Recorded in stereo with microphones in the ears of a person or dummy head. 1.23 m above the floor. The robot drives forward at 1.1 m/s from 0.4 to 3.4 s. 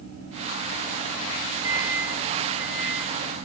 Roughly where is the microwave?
Centre.